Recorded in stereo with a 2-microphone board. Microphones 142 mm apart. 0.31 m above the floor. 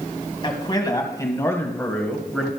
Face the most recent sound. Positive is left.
turn(degrees=0)  # may be behind; listen again after turning